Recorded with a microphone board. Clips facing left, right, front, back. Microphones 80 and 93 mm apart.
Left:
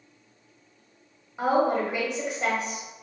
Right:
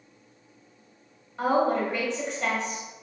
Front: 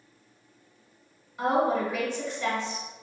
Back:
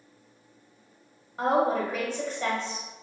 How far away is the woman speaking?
About 1.2 m.